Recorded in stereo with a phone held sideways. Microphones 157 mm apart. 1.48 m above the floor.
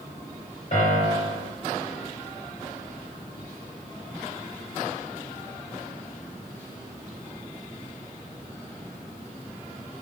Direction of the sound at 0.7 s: 50° left (ahead or behind).